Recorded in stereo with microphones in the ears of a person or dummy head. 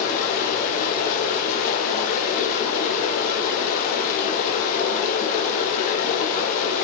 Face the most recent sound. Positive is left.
turn(degrees=45)  # may be behind; listen again after turning